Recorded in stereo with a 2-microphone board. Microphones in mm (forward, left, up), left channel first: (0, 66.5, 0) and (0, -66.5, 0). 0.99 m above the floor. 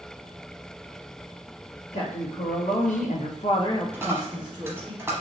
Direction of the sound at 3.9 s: 20° right (ahead or behind).